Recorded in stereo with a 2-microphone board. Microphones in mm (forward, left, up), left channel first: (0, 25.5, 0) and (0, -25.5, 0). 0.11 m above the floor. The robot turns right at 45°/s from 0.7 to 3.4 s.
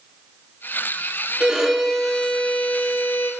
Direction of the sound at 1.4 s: 20° right.